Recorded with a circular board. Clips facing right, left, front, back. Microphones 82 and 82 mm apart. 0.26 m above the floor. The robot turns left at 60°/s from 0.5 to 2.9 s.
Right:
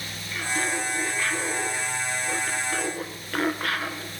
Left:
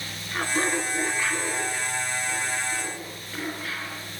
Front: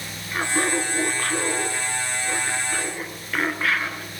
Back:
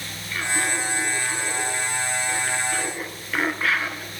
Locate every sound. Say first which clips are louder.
0.3 s laughter: left 2 dB, front 3 dB; 55° left, 3.5 m; by 4.1 s 90° right, 3.5 m